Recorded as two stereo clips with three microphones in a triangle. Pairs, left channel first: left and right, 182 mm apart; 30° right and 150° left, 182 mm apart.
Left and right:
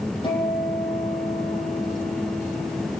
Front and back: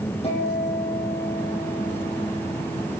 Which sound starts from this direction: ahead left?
A guitar, at 0.2 s.